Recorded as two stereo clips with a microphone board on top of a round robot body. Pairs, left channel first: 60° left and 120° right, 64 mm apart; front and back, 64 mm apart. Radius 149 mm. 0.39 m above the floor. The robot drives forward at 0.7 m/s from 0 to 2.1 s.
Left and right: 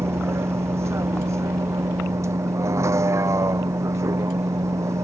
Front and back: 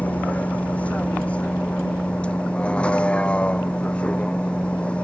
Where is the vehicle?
70° right; by 5.0 s 75° right.